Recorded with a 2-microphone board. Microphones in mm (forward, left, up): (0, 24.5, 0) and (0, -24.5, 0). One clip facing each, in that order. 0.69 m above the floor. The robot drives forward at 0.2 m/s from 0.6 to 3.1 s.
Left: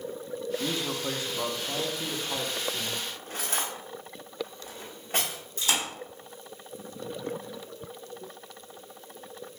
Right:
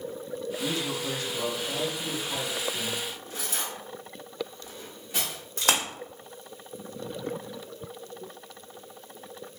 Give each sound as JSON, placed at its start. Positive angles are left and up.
{"t": 0.6, "sound": "a man speaking", "side_deg": 25, "distance_m": 0.6}
{"t": 3.1, "sound": "cutlery clinking", "side_deg": 50, "distance_m": 0.8}
{"t": 5.6, "sound": "a splash", "side_deg": -75, "distance_m": 0.8}